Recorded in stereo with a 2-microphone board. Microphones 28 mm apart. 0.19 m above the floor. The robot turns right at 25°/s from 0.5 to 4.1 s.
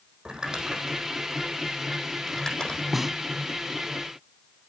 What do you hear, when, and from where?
0.2 s crumpling: 25° right (ahead or behind), 5 m; by 2.8 s 30° left (ahead or behind), 5 m
2.9 s a snare drum: 10° right (ahead or behind), 0.7 m; by 3.2 s 5° right (ahead or behind), 0.7 m